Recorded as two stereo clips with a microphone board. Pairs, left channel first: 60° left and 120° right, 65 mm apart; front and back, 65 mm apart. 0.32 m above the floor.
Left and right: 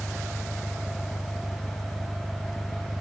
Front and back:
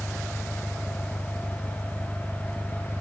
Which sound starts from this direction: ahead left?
An engine running, at 0.0 s.